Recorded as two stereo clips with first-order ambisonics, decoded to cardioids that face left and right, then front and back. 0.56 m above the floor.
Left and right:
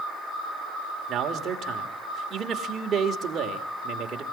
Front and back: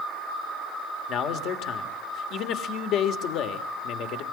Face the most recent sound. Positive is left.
turn(degrees=-35)